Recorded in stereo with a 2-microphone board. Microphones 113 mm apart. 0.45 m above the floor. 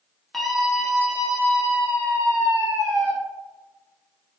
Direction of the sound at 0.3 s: 5° left (ahead or behind).